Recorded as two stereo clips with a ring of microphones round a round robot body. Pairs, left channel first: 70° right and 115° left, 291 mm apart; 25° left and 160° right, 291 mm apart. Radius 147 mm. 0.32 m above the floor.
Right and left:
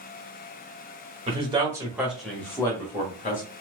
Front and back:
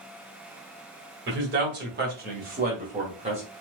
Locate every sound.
1.3 s a man speaking: 175° left, 1.4 m; by 3.4 s 100° right, 1.3 m